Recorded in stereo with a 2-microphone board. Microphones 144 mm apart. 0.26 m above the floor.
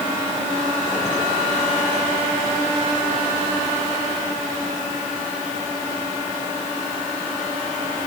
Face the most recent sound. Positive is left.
No sound to turn to.